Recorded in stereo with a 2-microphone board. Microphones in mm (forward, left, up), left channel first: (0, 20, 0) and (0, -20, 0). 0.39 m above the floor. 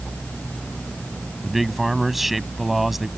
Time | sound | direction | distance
1.4 | a man speaking | 5° right (ahead or behind) | ?